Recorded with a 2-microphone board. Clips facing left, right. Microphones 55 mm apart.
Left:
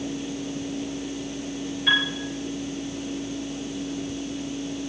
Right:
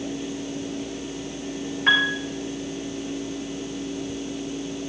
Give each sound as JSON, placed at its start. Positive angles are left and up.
{"t": 1.9, "sound": "a piano", "side_deg": -45, "distance_m": 10.0}